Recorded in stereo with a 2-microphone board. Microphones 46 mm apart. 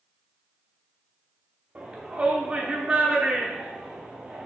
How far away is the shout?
About 0.9 m.